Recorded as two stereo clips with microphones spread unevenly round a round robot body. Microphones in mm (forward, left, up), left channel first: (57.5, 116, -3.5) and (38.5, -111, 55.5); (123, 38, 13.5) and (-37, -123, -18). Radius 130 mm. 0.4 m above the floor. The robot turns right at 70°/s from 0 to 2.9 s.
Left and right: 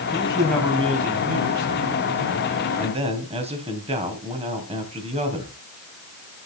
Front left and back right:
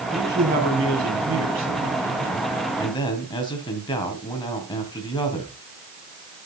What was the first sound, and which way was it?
A man speaking, 135° left.